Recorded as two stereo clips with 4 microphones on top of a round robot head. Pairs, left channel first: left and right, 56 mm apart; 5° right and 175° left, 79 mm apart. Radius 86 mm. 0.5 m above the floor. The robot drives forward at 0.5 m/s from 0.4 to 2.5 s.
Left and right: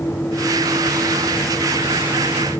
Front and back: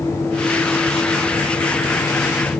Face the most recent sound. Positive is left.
No sound to turn to.